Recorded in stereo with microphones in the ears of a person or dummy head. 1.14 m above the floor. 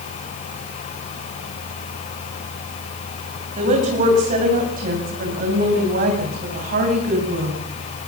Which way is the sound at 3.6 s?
45° right (ahead or behind).